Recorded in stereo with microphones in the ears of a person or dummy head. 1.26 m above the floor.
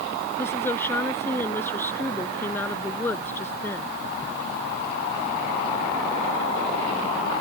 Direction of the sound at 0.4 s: 15° left (ahead or behind).